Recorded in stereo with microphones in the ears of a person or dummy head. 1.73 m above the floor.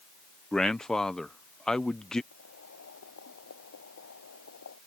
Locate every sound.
0.5 s a man speaking: 5° left (ahead or behind)
2.3 s boiling: 80° left